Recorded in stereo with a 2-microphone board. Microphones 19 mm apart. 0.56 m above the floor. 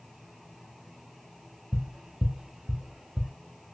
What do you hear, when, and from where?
1.7 s tapping: 35° right (ahead or behind), 0.7 m